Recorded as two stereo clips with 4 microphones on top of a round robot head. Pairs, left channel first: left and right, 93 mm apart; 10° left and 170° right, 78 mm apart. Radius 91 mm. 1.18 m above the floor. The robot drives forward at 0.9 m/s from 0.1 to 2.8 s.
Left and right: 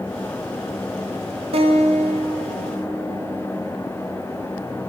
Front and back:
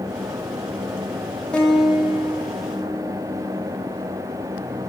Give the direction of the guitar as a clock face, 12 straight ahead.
2 o'clock.